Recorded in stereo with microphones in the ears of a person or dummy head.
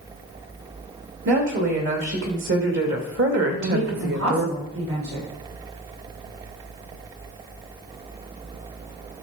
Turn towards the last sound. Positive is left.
turn(degrees=-80)